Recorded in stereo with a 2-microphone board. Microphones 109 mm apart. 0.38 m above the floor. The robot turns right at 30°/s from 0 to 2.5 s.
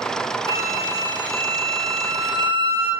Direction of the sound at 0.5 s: 80° right.